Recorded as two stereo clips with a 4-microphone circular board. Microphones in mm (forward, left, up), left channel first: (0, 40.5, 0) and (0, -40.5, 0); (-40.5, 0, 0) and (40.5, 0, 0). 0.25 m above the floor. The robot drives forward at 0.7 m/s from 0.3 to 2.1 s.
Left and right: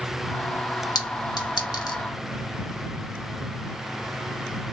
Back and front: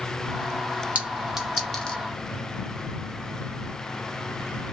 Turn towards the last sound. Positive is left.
turn(degrees=110)